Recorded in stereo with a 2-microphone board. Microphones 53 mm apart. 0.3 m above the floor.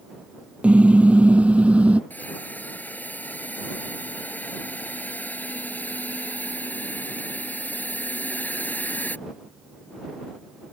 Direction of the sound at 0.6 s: 25° right (ahead or behind).